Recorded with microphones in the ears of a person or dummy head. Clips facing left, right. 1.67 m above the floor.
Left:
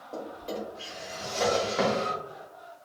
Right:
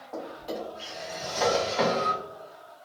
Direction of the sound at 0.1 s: 20° left (ahead or behind).